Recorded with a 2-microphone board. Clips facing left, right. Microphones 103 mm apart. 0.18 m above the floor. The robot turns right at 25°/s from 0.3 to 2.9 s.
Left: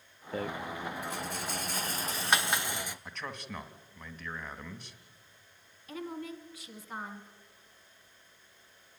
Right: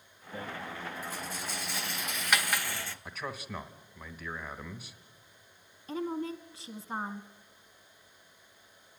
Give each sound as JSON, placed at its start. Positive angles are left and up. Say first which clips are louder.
{"t": 0.3, "sound": "a rattle", "louder": "left 4 dB", "side_deg": 75, "distance_m": 0.5}
{"t": 3.0, "sound": "a man speaking", "louder": "right 2 dB", "side_deg": -5, "distance_m": 1.0}
{"t": 5.9, "sound": "a woman speaking", "louder": "right 5 dB", "side_deg": -30, "distance_m": 1.2}